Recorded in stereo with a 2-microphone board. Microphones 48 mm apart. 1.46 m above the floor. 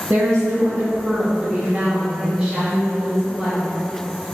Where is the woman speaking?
50° right (ahead or behind), 0.5 m; by 3.6 s 10° right (ahead or behind), 2 m.